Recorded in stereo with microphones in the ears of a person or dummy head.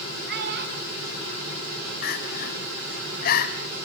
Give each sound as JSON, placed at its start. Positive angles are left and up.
{"t": 0.3, "sound": "a child speaking", "side_deg": -55, "distance_m": 6.5}
{"t": 2.0, "sound": "crying", "side_deg": 45, "distance_m": 2.0}